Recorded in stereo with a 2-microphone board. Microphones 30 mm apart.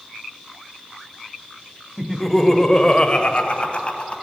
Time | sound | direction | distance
2.0 | laughter | centre (ahead or behind) | 1.2 m